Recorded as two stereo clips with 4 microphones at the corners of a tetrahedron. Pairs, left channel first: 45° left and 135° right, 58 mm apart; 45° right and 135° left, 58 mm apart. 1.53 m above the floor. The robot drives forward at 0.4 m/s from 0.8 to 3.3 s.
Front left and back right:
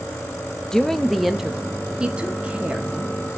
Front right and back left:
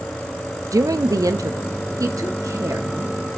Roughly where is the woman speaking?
Behind left.